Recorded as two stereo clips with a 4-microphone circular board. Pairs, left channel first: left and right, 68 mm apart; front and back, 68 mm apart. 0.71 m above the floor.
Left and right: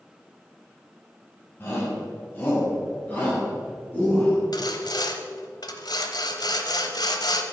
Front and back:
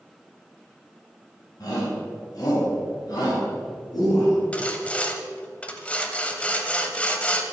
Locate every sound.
1.6 s a shout: 35° left, 5 m; by 4.4 s 25° left, 6.5 m
4.5 s sawing: 75° left, 1.1 m